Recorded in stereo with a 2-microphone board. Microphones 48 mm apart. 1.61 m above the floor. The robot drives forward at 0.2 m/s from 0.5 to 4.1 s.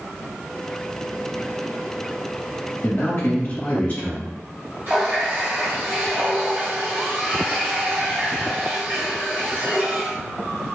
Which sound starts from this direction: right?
A running tap, at 4.9 s.